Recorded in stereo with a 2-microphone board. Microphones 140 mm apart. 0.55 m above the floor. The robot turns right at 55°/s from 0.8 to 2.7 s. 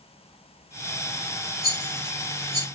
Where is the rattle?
85° left, 2 m; by 2.6 s 35° left (ahead or behind), 2 m.